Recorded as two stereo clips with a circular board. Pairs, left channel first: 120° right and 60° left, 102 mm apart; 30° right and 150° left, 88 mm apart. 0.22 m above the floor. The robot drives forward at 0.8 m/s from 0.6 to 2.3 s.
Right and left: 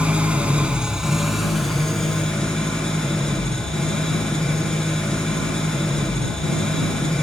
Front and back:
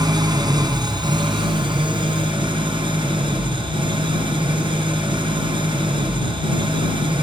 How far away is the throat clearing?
No throat clearing in this recording.